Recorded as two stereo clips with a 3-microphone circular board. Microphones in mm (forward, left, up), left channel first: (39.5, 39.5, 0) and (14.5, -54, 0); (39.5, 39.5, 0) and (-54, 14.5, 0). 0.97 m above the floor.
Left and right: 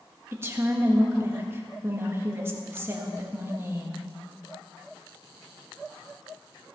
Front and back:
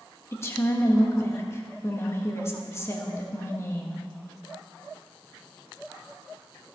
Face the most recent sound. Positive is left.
turn(degrees=-45)